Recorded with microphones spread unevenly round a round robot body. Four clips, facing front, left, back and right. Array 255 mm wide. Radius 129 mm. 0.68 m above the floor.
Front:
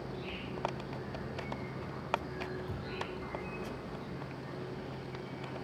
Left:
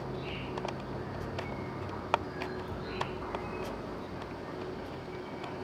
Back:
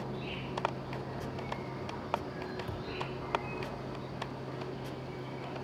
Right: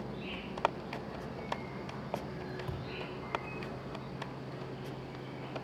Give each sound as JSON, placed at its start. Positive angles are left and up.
{"t": 0.0, "sound": "an insect", "azimuth_deg": 115, "distance_m": 1.7}
{"t": 2.7, "sound": "a thud", "azimuth_deg": -145, "distance_m": 1.8}